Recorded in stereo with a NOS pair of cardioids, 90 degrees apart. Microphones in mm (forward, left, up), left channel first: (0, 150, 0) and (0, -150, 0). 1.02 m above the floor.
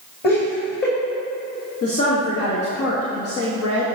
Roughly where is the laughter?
Ahead left.